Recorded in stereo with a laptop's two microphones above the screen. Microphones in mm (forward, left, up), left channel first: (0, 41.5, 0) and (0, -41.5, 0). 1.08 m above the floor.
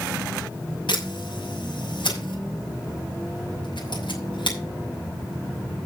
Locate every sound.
0.9 s a camera shutter: 75° left (ahead or behind), 6 m